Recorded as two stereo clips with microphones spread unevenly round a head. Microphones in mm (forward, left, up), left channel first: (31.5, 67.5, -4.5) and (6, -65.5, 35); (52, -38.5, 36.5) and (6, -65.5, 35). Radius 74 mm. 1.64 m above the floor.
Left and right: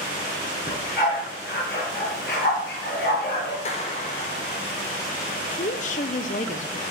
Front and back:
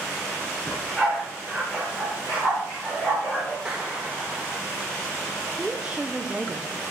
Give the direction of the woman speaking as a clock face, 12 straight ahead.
8 o'clock.